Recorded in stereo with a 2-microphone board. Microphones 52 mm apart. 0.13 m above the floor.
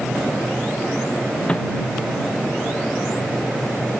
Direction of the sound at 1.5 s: 25° left (ahead or behind).